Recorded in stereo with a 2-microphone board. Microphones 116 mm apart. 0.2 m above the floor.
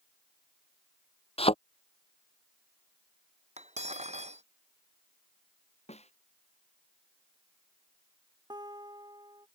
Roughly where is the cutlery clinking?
Right.